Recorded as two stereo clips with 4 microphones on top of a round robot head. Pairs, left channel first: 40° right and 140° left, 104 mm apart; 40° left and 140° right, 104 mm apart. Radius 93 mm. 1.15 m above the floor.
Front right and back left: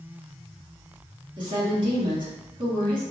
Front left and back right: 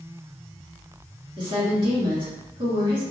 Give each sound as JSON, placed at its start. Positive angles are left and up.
{"t": 1.4, "sound": "a woman speaking", "azimuth_deg": 180, "distance_m": 1.9}